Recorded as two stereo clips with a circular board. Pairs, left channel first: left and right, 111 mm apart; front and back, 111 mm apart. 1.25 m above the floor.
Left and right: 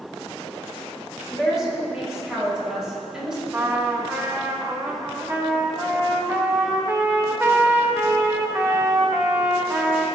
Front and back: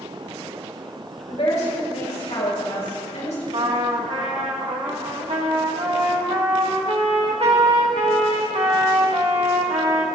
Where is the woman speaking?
5° right, 4.5 m.